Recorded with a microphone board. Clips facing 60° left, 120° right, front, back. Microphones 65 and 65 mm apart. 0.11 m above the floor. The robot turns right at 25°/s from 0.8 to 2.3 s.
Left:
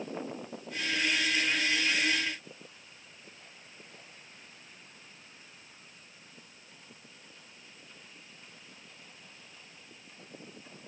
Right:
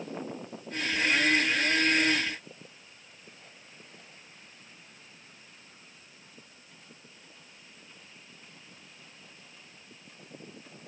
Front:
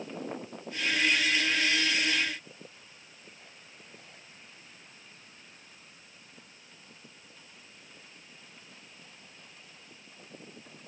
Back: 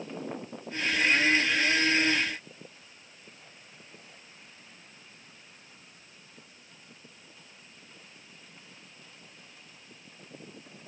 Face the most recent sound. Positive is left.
No sound to turn to.